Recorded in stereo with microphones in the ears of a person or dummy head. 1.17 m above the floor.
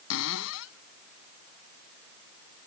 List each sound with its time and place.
0.1 s a cupboard door: 75° left (ahead or behind)